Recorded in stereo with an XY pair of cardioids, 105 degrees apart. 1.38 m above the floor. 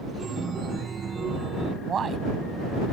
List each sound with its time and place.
0.2 s a chime: 40° right
1.8 s a man speaking: 45° right